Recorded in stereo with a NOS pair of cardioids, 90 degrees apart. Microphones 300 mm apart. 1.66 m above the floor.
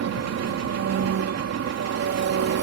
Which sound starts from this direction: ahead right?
An engine running, at 0.0 s.